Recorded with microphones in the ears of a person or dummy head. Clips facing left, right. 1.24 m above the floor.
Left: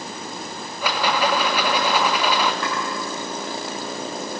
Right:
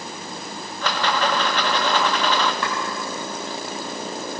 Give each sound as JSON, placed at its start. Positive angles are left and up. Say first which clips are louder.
{"t": 0.8, "sound": "a rattle", "louder": "left 1 dB", "side_deg": 15, "distance_m": 1.4}
{"t": 2.6, "sound": "chopping", "louder": "even", "side_deg": -60, "distance_m": 6.5}